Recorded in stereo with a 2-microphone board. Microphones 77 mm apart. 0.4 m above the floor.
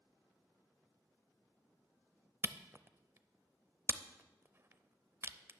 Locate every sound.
2.4 s a camera shutter: 35° right (ahead or behind), 0.5 m